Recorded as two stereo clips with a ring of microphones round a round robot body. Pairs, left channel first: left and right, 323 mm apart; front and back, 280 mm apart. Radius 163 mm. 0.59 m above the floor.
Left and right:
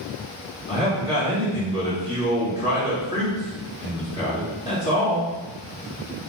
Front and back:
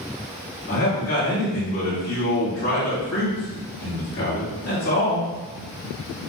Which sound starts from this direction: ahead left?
A man speaking, at 0.7 s.